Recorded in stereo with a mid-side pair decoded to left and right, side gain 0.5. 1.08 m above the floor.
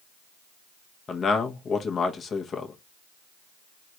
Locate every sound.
1.1 s a man speaking: 40° left, 0.9 m